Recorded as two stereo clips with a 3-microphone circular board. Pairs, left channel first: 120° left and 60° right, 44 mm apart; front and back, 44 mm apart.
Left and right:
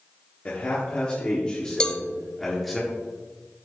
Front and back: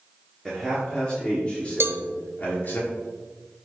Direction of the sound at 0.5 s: 75° left.